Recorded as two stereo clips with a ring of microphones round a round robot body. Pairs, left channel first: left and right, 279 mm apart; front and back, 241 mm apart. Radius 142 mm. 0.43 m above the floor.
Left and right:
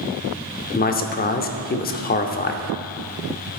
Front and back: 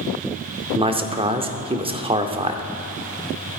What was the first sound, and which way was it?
A man speaking, 125° left.